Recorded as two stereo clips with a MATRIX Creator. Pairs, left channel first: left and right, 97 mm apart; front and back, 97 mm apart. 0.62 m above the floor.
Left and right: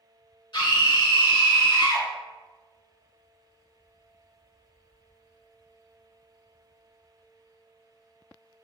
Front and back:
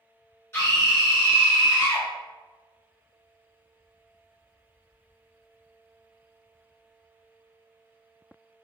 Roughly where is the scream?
Ahead left.